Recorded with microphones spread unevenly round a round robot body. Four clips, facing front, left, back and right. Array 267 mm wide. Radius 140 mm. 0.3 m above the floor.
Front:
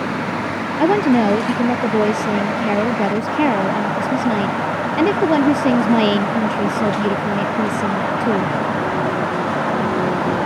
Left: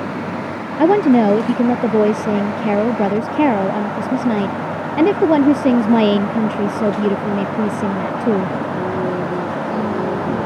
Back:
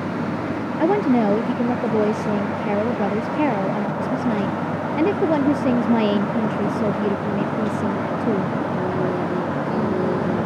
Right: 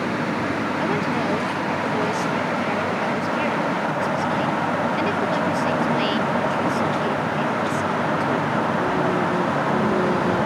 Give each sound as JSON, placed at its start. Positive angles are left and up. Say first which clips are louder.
{"t": 0.8, "sound": "a woman speaking", "louder": "left 16 dB, front 3 dB", "azimuth_deg": 75}